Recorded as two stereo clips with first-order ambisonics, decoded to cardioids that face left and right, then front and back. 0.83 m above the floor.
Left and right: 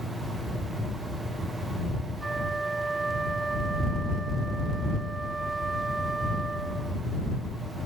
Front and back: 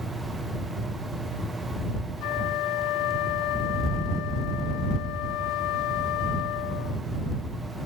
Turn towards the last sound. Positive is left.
turn(degrees=-15)